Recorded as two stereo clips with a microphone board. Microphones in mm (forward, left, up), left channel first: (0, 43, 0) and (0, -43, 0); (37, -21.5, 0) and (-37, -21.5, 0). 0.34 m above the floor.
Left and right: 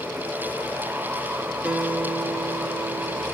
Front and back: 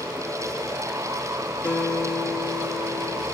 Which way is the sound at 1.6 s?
30° right.